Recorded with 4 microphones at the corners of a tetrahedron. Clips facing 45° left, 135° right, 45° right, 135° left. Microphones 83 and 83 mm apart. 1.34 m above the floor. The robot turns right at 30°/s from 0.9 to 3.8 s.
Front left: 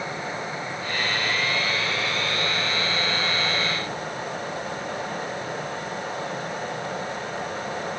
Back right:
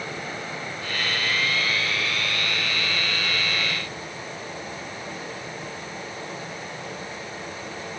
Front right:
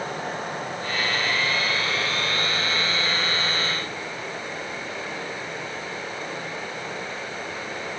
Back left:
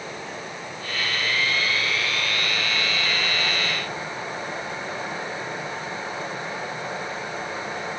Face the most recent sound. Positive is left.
turn(degrees=65)